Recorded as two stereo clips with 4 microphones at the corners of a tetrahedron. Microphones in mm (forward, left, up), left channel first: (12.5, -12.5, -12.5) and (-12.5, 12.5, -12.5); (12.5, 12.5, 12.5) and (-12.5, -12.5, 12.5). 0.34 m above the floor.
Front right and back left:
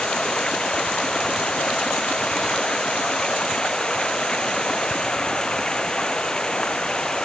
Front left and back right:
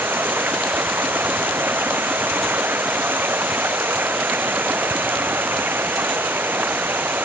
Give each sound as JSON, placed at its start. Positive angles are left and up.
{"t": 0.0, "sound": "running water", "azimuth_deg": -115}